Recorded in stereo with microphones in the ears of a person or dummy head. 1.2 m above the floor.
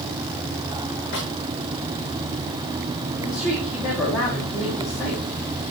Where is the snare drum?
50° left (ahead or behind), 6.5 m.